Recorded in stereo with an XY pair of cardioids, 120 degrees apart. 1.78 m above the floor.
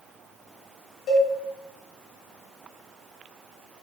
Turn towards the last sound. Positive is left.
turn(degrees=50)